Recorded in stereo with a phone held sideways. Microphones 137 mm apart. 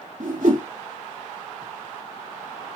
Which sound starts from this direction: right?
A whoosh, at 0.2 s.